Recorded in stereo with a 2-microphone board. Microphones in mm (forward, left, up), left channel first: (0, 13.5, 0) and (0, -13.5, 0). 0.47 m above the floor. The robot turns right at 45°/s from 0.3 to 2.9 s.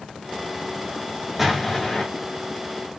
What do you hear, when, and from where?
1.4 s an explosion: 10° right (ahead or behind), 1.0 m; by 2.0 s 15° left (ahead or behind), 1.0 m